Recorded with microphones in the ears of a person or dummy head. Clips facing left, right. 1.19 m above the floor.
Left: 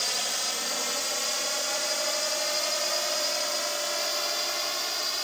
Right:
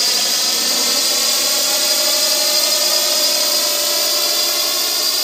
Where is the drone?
70° right (ahead or behind).